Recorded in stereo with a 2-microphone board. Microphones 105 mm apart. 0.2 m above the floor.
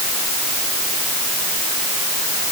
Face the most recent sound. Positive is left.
No sound to turn to.